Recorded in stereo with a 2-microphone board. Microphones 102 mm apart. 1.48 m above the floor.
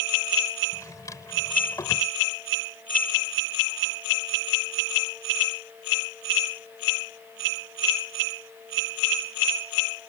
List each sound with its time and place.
0.7 s a drawer: 35° left (ahead or behind)